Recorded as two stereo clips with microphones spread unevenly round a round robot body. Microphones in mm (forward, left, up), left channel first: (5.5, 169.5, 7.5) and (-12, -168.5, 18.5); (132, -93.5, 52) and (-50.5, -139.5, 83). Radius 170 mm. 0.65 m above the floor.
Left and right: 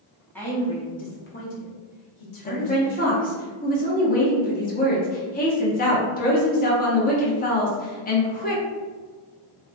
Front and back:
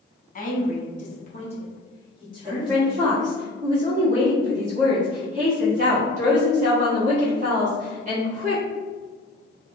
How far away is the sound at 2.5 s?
About 0.7 m.